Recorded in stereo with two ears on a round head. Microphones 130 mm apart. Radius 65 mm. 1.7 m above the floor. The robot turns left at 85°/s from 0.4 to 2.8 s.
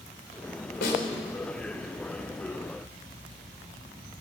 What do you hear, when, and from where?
0.8 s a snare drum: 75° left (ahead or behind), 4 m